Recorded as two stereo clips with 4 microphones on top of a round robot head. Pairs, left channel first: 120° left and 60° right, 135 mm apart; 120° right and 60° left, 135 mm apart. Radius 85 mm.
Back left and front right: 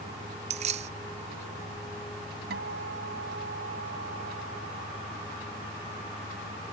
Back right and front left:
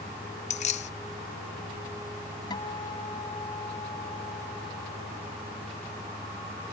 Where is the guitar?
60° right.